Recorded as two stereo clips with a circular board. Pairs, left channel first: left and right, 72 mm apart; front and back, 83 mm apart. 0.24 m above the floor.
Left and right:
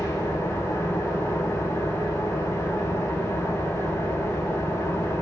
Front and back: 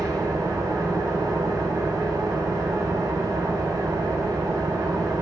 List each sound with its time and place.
0.0 s an engine running: 135° left, 10 m